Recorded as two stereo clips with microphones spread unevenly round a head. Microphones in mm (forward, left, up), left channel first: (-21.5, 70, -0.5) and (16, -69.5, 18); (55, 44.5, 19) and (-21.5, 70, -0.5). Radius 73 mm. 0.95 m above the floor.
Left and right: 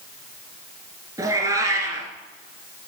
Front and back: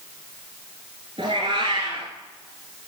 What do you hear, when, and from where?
1.2 s a cat meowing: 135° right, 1.8 m